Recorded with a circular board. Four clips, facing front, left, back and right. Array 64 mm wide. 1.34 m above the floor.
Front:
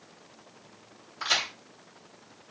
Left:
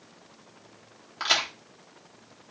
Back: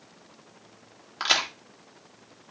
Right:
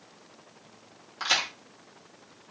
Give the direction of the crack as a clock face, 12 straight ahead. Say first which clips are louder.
Left 1 dB, back 3 dB; 7 o'clock.